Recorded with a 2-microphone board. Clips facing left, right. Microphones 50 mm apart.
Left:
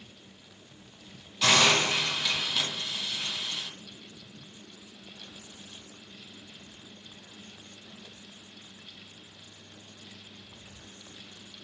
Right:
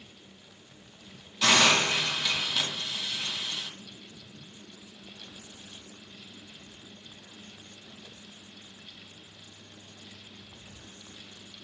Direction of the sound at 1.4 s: Centre (ahead or behind).